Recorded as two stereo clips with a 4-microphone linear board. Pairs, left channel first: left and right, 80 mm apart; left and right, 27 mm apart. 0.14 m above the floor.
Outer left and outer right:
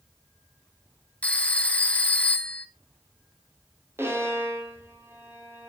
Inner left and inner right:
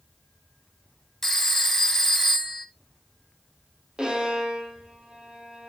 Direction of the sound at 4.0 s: 30° right (ahead or behind).